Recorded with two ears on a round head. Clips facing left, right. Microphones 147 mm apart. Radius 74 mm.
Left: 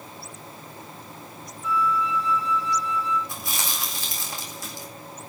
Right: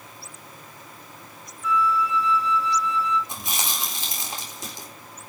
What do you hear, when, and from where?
1.6 s a flute: 55° right (ahead or behind), 3 m
3.3 s chewing: 20° right (ahead or behind), 4 m